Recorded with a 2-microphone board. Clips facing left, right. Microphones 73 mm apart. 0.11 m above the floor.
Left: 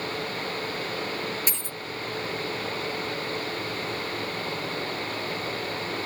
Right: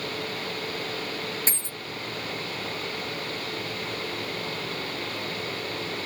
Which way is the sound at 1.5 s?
35° right (ahead or behind).